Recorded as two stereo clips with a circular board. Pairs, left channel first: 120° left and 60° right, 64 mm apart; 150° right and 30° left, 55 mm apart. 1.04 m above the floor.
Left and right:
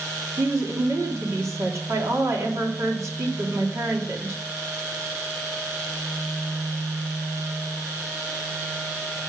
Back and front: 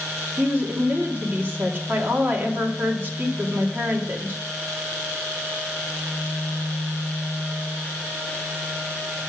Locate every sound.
0.4 s a woman speaking: 25° right, 2.5 m